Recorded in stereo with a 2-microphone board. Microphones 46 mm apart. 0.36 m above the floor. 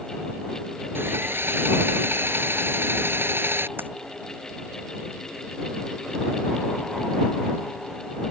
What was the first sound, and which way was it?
Sawing, 55° right (ahead or behind).